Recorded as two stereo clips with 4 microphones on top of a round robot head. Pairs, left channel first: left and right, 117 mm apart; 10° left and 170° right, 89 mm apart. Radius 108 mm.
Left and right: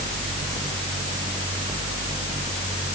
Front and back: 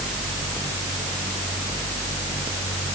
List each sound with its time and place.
Only background noise.